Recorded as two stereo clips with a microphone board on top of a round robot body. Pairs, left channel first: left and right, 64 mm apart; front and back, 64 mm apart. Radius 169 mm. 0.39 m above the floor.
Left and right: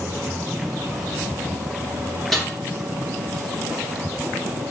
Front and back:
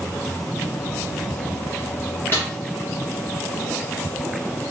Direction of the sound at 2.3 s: 5° left.